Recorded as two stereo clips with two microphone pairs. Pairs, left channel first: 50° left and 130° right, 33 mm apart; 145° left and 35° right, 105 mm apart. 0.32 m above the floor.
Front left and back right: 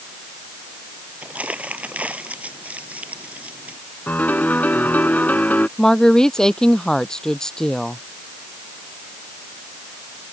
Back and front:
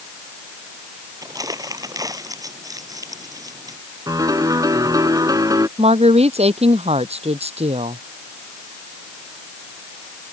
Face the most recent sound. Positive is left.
turn(degrees=-25)